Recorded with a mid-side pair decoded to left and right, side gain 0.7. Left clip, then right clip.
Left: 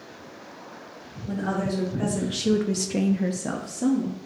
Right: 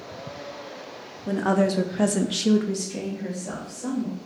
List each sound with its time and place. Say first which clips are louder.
1.3 s a woman speaking: right 6 dB; 60° right, 1.0 m; by 4.2 s 75° left, 1.2 m